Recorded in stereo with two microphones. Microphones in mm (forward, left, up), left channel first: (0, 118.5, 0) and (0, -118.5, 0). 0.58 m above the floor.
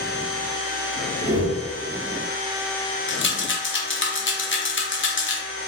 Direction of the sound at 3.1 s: 50° left (ahead or behind).